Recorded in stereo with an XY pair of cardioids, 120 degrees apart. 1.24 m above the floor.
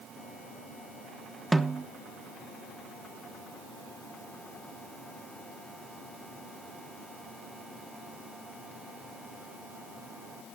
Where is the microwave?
I don't hear a microwave.